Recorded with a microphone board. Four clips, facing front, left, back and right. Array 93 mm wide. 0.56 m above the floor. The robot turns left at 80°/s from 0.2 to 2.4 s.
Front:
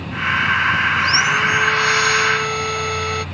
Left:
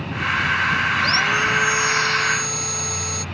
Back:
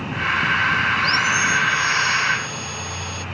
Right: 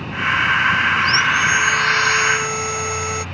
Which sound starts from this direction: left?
Sawing, at 1.0 s.